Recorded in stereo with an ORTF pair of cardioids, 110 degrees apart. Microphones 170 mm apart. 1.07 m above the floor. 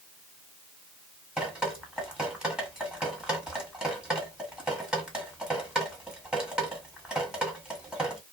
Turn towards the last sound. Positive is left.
turn(degrees=-5)